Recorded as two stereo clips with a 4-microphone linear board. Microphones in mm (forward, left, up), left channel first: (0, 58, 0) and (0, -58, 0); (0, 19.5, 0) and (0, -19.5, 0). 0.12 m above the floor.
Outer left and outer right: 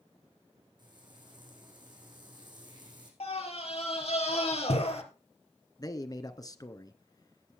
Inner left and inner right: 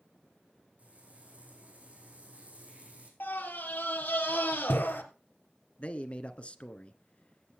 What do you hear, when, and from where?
0.8 s frying: 40° right (ahead or behind), 4 m
3.2 s a scream: 60° left (ahead or behind), 3 m
5.8 s a man speaking: 30° left (ahead or behind), 1.3 m